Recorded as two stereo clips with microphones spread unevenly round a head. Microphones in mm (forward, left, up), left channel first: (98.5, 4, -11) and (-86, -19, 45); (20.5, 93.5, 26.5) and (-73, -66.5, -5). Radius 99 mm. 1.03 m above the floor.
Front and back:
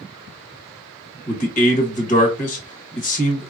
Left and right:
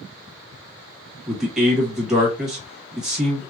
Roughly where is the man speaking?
Ahead right.